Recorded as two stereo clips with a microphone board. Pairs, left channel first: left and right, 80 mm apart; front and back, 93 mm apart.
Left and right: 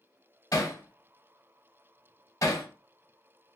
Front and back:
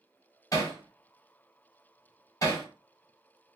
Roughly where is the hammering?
Ahead left.